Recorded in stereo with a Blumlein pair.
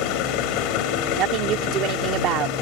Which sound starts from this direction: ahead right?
A woman speaking, at 1.2 s.